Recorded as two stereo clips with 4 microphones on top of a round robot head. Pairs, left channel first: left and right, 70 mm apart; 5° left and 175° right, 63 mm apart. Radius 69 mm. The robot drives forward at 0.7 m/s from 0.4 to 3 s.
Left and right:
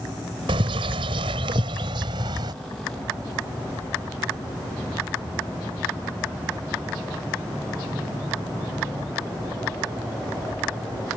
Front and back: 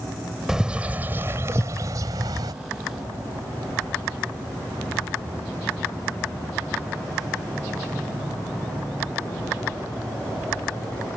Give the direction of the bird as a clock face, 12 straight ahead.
3 o'clock.